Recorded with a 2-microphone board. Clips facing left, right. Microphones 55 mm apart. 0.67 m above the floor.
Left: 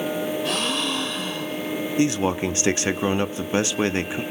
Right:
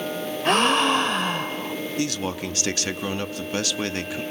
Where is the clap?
No clap in this recording.